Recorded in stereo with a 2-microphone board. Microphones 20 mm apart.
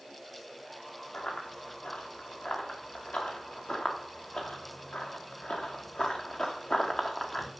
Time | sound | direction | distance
1.1 | running footsteps | 80° left | 4.5 m